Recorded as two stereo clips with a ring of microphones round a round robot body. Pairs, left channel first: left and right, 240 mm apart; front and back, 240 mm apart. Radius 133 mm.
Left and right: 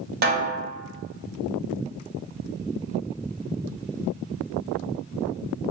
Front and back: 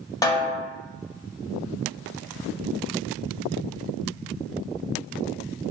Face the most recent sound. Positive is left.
turn(degrees=-70)